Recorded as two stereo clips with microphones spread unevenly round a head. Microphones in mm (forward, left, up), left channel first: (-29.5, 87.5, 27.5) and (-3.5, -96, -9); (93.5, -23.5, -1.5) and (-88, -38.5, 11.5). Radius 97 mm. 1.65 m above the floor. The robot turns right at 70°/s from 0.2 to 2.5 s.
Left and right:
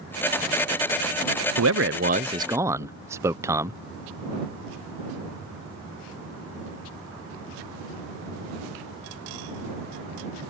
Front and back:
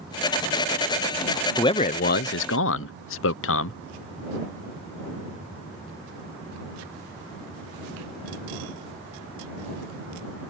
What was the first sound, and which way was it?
A man speaking, 70° right.